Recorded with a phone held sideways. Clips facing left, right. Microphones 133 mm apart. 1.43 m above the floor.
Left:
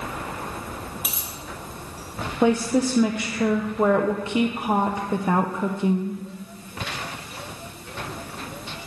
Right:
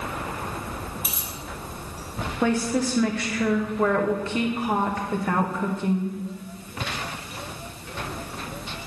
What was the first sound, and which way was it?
A dropped coin, 70° left (ahead or behind).